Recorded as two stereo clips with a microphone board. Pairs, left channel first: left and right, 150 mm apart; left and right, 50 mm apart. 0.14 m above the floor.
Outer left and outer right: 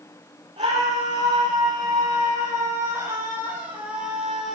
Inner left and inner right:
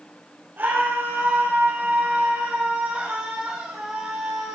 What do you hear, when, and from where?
0.6 s a scream: 35° right (ahead or behind), 6 m; by 4.6 s centre (ahead or behind), 4.5 m